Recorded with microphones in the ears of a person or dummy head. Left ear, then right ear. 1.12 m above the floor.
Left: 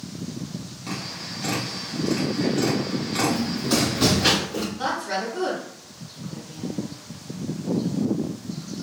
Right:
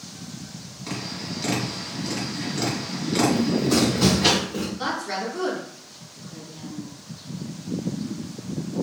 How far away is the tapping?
About 1.6 m.